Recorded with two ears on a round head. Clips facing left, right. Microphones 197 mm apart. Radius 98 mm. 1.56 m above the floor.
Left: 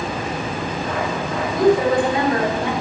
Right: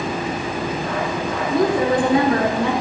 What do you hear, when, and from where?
1.5 s a woman speaking: 80° right, 3 m